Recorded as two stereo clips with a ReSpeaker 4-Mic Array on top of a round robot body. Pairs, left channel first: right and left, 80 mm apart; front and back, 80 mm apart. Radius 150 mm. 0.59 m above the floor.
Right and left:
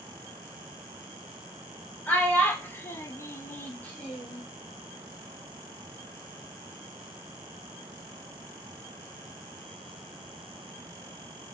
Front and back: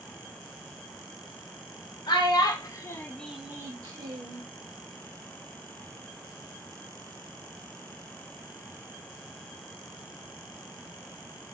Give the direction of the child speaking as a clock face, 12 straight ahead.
1 o'clock.